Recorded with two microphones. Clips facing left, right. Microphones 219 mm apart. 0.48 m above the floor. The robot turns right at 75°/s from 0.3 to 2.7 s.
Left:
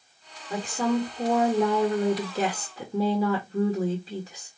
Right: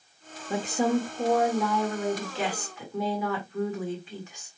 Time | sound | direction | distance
0.5 | a woman speaking | 45° right | 1.5 m